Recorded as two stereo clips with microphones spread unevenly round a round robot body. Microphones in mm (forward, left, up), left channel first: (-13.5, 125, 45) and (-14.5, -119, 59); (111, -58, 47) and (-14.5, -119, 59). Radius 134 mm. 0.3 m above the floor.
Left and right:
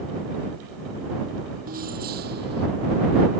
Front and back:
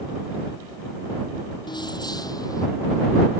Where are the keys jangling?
35° right; by 2.7 s 40° right.